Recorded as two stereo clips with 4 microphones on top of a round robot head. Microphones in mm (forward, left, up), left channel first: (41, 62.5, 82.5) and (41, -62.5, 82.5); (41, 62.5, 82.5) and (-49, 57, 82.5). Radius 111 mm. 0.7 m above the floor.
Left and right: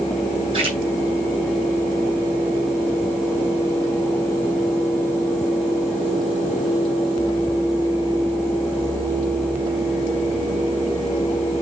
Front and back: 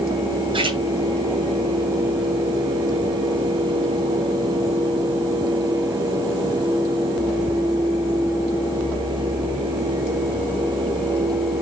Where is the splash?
140° right, 3.5 m.